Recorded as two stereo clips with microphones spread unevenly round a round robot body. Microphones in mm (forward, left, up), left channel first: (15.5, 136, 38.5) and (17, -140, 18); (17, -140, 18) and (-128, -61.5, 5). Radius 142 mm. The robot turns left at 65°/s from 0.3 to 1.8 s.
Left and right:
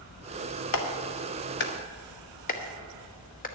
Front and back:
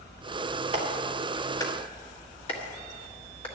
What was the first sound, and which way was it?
A clap, 100° left.